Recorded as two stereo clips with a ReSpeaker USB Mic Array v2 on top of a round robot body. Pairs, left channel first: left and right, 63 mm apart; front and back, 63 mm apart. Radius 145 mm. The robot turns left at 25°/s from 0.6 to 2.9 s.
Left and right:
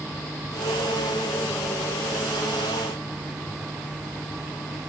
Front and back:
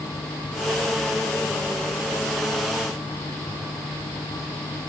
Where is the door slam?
I don't hear a door slam.